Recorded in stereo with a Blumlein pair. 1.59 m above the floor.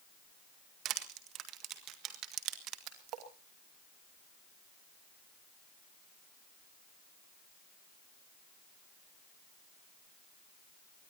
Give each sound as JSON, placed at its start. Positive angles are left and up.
{"t": 0.8, "sound": "crushing", "azimuth_deg": -35, "distance_m": 1.6}
{"t": 2.9, "sound": "a splash", "azimuth_deg": -35, "distance_m": 2.5}